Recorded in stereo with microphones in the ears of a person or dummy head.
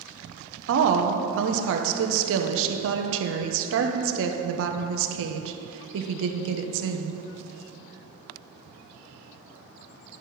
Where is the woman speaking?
75° right (ahead or behind), 1.0 m.